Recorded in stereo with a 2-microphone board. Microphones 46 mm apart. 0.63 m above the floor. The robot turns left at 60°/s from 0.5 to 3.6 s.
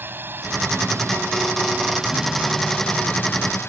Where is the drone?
50° right (ahead or behind); by 3.7 s 65° left (ahead or behind).